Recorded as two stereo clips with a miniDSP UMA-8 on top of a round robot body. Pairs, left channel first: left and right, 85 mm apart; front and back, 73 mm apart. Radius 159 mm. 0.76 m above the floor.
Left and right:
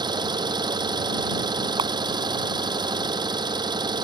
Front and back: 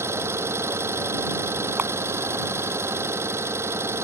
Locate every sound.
0.0 s an engine running: 125° right
1.8 s a camera shutter: 120° right